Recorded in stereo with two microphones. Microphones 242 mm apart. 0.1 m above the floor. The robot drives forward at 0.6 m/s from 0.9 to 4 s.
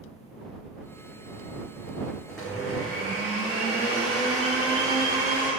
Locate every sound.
2.3 s a blender: centre (ahead or behind), 2 m